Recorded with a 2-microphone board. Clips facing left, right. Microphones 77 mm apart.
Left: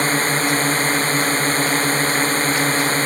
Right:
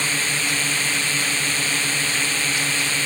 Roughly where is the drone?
Left.